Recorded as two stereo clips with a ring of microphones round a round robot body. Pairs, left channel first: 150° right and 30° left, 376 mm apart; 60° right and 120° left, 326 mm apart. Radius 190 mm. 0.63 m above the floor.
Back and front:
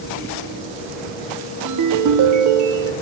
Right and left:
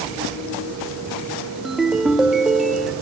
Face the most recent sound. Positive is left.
turn(degrees=30)